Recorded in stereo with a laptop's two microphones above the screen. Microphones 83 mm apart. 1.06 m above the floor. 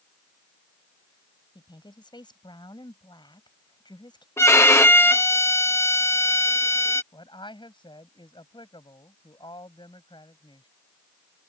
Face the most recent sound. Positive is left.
turn(degrees=85)